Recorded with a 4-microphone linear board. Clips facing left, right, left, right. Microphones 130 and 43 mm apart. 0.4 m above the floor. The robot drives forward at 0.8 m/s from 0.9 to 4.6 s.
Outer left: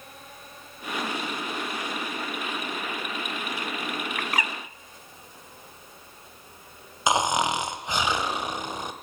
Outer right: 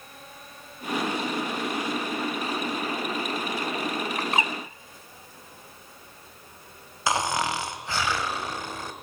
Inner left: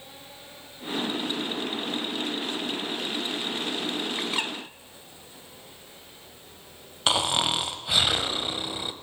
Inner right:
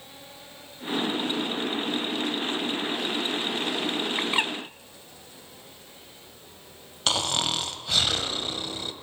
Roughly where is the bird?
Right.